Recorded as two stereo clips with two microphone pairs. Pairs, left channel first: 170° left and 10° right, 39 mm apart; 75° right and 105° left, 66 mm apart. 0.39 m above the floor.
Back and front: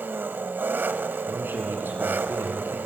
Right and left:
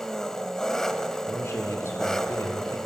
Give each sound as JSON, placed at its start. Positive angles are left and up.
{"t": 0.0, "sound": "an engine running", "azimuth_deg": 5, "distance_m": 1.1}
{"t": 1.3, "sound": "a man speaking", "azimuth_deg": -30, "distance_m": 5.5}